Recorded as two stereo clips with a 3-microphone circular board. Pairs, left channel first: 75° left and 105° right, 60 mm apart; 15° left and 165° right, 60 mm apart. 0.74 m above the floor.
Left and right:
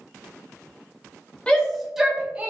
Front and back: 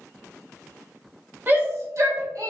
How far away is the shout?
About 1.1 m.